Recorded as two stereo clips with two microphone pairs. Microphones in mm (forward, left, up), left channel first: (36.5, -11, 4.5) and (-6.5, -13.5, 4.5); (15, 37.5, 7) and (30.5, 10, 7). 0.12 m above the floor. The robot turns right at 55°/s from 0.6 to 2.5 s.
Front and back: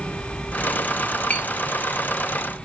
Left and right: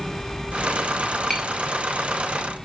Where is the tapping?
40° left, 1.7 m; by 1.5 s 50° left, 1.7 m.